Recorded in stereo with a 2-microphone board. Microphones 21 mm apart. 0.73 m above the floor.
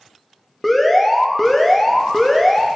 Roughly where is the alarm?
Centre.